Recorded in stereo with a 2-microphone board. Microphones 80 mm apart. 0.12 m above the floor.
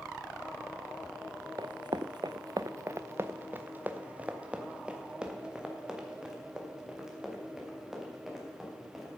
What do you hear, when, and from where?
1.6 s running footsteps: 70° right (ahead or behind), 0.5 m; by 9.2 s 5° right (ahead or behind), 4 m